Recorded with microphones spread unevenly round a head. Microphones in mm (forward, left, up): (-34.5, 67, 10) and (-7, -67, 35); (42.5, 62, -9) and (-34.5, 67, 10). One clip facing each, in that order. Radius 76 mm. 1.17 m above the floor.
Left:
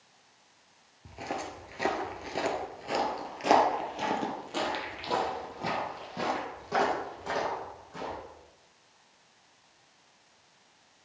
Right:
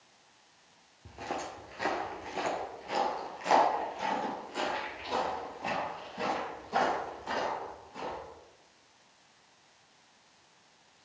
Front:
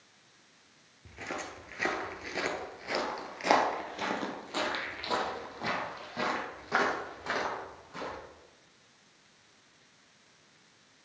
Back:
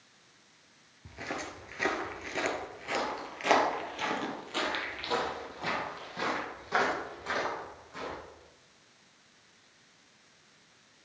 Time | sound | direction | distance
1.1 | footsteps | 155° right | 1.2 m